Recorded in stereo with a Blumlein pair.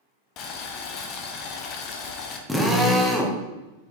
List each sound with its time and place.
0.4 s boiling: 35° left, 0.6 m
2.5 s a drill: straight ahead, 0.7 m